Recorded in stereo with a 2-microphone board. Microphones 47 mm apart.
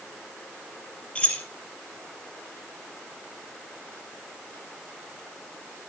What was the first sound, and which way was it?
Keys jangling, 25° left (ahead or behind).